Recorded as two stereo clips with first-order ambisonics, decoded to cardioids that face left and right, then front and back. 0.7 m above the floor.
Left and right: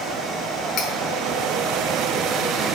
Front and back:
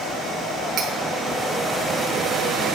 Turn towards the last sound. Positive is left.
turn(degrees=135)